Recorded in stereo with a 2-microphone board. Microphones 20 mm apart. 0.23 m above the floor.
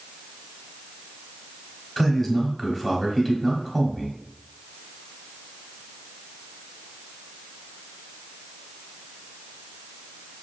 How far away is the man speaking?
About 1.1 m.